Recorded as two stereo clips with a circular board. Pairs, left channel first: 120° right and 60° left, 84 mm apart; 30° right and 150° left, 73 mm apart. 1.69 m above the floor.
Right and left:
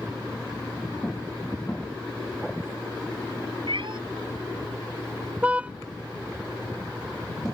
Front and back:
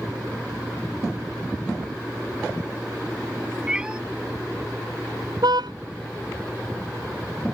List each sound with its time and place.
3.7 s a cat meowing: 75° left
5.4 s a car horn: 135° left